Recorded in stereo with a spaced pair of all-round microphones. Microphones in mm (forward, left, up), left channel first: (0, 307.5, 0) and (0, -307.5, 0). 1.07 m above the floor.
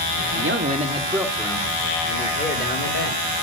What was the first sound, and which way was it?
A man speaking, 20° right (ahead or behind).